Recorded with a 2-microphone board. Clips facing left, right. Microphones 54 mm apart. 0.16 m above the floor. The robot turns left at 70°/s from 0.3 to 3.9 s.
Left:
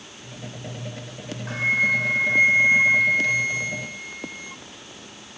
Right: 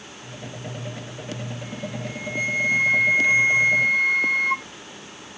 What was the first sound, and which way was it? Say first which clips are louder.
A flute: left 12 dB; 110° left.